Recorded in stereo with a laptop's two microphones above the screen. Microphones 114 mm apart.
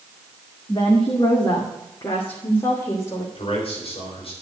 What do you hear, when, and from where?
0.7 s a woman speaking: 40° left (ahead or behind), 2.0 m; by 3.2 s 35° left (ahead or behind), 3.5 m
3.4 s a man speaking: 55° left (ahead or behind), 3.5 m